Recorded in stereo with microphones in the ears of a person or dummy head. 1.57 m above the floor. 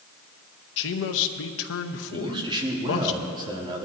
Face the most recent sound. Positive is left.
turn(degrees=-25)  # may be behind; listen again after turning